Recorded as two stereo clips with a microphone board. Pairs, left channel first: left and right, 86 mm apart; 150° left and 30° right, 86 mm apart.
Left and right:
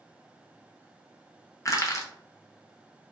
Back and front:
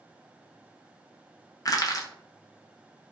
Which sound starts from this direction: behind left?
Crushing, at 1.6 s.